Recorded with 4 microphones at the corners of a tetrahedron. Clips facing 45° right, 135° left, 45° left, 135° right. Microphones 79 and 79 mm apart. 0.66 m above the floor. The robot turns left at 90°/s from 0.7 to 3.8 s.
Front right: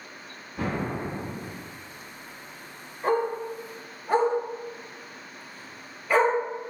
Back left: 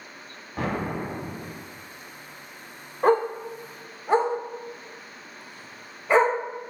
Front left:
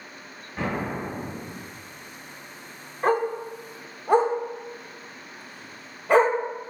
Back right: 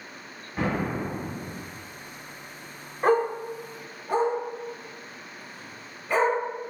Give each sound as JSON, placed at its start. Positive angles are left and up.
{"t": 0.6, "sound": "an explosion", "azimuth_deg": 140, "distance_m": 1.2}
{"t": 3.0, "sound": "a dog barking", "azimuth_deg": 140, "distance_m": 0.6}